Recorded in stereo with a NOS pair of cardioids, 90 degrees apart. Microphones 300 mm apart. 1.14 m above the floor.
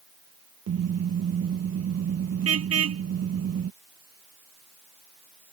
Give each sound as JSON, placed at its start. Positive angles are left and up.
{"t": 0.7, "sound": "a car horn", "azimuth_deg": -50}